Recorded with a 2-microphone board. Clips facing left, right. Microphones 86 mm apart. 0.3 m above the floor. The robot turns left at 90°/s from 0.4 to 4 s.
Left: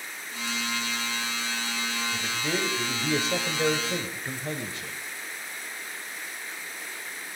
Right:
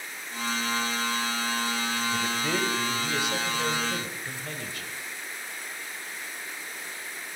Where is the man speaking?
145° right, 1.2 m; by 4.9 s 45° left, 1.2 m.